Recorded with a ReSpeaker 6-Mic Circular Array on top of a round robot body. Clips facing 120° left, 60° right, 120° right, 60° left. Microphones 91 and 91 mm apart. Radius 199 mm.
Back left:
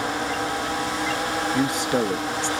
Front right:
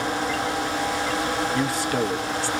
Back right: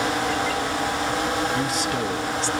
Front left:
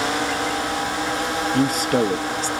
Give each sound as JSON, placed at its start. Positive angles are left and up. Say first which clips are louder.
{"t": 1.5, "sound": "a man speaking", "louder": "back left 1 dB, front left 5 dB", "azimuth_deg": 55, "distance_m": 1.6}